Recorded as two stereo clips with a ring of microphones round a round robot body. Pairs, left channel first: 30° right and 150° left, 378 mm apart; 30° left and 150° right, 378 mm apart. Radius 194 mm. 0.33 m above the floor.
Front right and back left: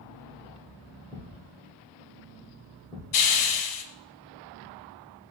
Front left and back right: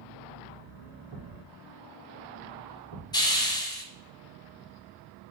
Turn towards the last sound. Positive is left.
turn(degrees=-50)